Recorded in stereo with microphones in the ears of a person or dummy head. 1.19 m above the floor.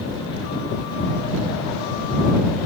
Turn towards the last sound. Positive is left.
No sound to turn to.